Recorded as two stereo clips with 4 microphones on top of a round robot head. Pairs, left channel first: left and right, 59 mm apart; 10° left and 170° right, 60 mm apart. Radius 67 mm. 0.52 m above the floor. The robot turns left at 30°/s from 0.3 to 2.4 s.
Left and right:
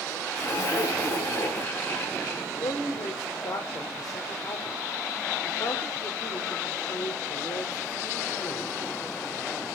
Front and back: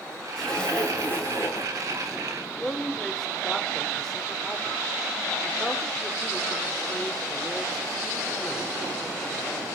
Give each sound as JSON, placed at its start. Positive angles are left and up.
{"t": 0.4, "sound": "a zipper", "azimuth_deg": 95, "distance_m": 4.5}
{"t": 2.5, "sound": "a man speaking", "azimuth_deg": 90, "distance_m": 1.8}